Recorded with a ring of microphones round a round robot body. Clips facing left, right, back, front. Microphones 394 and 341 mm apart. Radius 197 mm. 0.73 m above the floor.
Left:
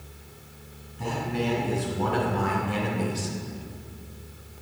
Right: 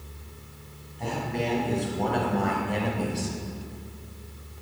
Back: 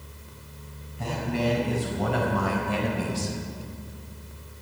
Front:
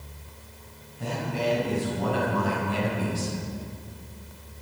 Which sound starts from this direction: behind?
A man speaking, at 1.0 s.